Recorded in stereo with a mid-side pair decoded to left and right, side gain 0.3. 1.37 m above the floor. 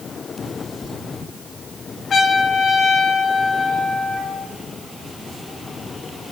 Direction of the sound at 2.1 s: 65° left.